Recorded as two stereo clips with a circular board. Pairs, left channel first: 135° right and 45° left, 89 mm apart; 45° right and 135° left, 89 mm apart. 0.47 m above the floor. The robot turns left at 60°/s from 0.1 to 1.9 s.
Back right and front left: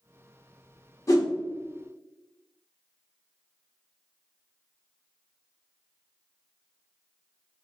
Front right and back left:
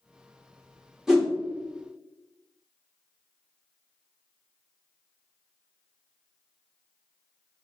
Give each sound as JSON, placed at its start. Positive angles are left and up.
{"t": 1.1, "sound": "a whoosh", "azimuth_deg": -145, "distance_m": 1.4}